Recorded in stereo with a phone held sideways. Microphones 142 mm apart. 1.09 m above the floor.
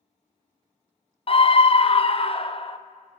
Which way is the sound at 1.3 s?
40° left (ahead or behind).